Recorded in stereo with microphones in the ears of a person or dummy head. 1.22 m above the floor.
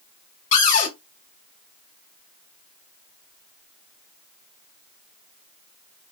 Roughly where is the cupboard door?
Left.